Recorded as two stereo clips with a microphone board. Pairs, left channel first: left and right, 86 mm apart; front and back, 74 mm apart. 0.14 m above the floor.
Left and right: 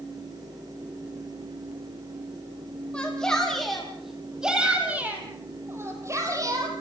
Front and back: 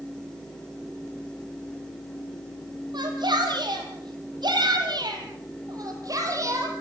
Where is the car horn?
I don't hear a car horn.